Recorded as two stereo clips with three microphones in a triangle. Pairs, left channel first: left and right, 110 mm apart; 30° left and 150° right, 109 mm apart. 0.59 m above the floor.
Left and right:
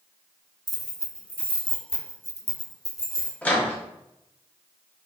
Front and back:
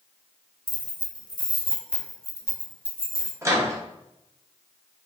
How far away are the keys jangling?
About 1.1 m.